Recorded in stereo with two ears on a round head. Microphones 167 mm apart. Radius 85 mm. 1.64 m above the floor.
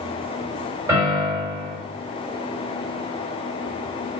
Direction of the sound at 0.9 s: 20° right (ahead or behind).